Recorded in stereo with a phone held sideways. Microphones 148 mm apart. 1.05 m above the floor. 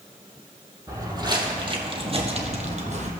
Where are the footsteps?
20° right (ahead or behind), 1.7 m; by 3.1 s 55° right (ahead or behind), 1.6 m.